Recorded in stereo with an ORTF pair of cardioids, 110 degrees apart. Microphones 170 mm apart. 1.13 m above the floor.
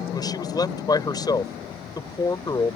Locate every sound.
0.1 s a man speaking: 25° left